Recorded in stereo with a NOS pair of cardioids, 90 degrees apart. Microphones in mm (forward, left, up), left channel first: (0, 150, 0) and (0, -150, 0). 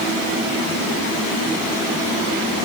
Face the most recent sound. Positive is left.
No sound to turn to.